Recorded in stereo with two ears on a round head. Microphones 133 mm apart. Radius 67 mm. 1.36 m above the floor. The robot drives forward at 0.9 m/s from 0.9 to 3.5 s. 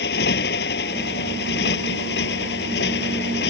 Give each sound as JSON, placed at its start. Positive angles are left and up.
{"t": 0.0, "sound": "a motorcycle", "side_deg": 75}